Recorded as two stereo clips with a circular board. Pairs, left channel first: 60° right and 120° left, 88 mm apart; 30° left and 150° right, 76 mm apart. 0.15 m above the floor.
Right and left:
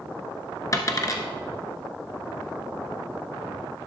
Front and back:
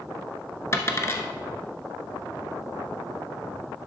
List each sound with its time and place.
0.7 s a dropped coin: 15° right, 1.0 m